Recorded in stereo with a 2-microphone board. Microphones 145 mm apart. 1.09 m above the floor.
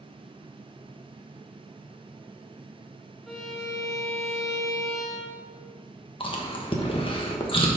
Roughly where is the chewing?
Left.